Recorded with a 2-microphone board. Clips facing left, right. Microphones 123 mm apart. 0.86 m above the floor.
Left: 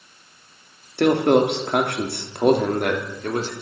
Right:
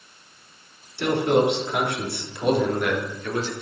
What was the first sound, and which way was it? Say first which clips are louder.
A man speaking: left 4 dB; 65° left (ahead or behind).